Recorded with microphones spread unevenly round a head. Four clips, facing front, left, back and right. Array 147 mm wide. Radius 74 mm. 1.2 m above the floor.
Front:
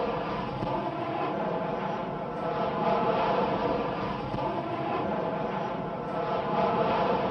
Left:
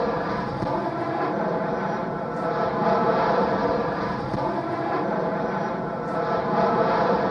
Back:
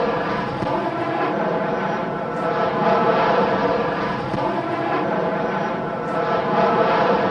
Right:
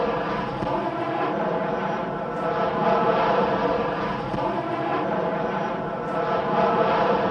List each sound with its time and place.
0.0 s an aircraft: straight behind